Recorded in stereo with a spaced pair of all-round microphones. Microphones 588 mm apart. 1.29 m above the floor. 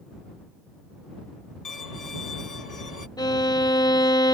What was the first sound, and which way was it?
A violin, 90° left.